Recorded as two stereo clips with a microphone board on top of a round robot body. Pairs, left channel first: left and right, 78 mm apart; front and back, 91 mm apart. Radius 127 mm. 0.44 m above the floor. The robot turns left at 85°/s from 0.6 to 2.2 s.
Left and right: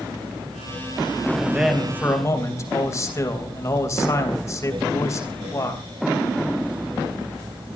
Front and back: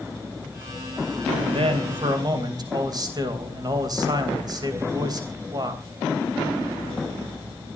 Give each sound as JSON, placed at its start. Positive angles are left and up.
{"t": 1.4, "sound": "a man speaking", "azimuth_deg": -155, "distance_m": 3.5}